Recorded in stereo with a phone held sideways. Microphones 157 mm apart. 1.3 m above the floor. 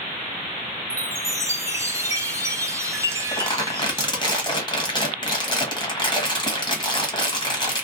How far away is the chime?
About 0.6 m.